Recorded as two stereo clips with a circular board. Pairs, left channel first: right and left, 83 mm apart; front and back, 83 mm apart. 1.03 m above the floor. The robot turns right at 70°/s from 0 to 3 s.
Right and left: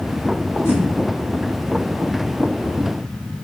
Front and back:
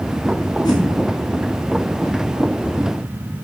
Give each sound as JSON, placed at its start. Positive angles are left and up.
{"t": 0.7, "sound": "a whoosh", "azimuth_deg": -30, "distance_m": 0.7}